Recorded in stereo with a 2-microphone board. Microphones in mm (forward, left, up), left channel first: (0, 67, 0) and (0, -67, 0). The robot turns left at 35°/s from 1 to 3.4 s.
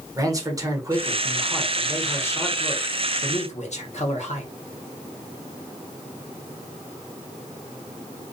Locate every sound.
0.2 s a man speaking: 155° right, 0.8 m; by 4.5 s 120° left, 0.8 m